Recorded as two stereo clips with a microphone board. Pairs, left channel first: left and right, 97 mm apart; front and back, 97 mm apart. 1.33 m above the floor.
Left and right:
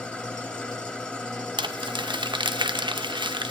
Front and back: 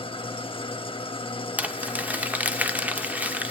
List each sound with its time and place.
0.0 s an engine running: 10° left, 1.5 m
1.6 s crumpling: 110° right, 0.7 m